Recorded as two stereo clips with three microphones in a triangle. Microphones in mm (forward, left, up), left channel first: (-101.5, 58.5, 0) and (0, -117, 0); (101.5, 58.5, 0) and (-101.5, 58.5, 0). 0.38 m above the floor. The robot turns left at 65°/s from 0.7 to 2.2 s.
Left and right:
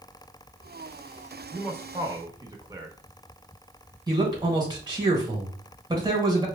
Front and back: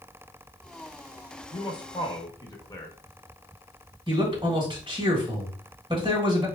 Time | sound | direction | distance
1.5 | a man speaking | 15° left | 0.8 m
4.1 | a man speaking | 125° right | 1.6 m